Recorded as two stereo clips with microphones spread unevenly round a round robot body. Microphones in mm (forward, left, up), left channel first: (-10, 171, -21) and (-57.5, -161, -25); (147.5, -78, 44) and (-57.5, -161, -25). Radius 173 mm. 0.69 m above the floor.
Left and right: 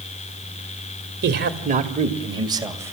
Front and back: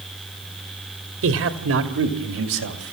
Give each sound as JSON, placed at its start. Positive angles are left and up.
{"t": 1.2, "sound": "a man speaking", "azimuth_deg": -155, "distance_m": 2.0}